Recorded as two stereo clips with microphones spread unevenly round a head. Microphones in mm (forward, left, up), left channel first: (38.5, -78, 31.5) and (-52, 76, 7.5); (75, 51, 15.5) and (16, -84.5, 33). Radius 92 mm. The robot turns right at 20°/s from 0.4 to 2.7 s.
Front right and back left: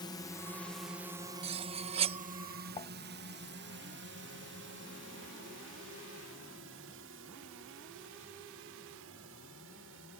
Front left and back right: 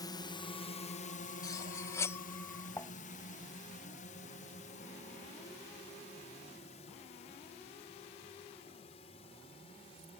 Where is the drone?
10° left; by 10.2 s 125° left.